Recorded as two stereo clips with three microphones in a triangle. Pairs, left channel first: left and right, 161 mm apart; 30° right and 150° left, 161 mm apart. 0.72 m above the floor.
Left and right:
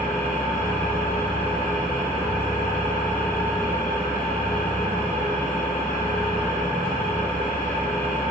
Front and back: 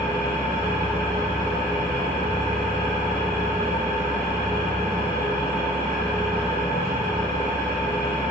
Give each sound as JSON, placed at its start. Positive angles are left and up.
{"t": 0.0, "sound": "an engine running", "azimuth_deg": 170, "distance_m": 1.1}